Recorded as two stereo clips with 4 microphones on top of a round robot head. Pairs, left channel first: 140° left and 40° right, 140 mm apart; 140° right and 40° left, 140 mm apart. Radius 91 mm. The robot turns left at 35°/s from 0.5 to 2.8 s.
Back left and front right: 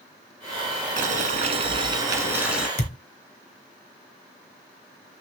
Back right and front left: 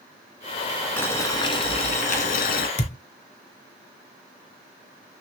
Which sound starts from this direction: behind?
A thud, at 2.8 s.